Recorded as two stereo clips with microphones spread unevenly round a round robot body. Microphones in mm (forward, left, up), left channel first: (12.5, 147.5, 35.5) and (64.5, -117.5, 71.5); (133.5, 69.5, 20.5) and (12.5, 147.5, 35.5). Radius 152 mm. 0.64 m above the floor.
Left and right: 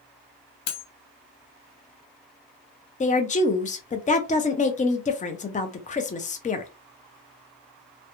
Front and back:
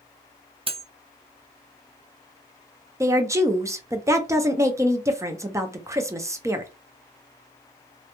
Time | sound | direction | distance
0.7 | cutlery clinking | 85° left | 0.6 m
3.0 | a woman speaking | 75° left | 0.5 m